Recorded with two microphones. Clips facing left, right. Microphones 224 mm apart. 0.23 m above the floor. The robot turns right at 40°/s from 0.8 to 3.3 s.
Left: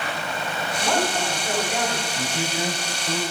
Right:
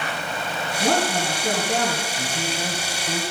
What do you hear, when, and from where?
0.8 s a woman speaking: 115° right, 2 m; by 2.1 s 60° right, 2 m
2.2 s a man speaking: 15° left (ahead or behind), 1.0 m; by 3.2 s 5° right (ahead or behind), 1.0 m